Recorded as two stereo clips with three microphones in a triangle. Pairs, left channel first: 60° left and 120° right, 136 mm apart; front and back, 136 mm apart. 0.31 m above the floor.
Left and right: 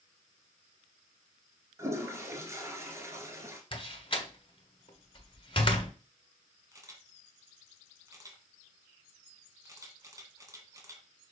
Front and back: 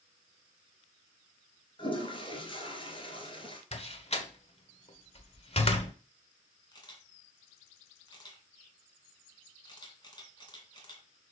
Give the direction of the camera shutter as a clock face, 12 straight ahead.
2 o'clock.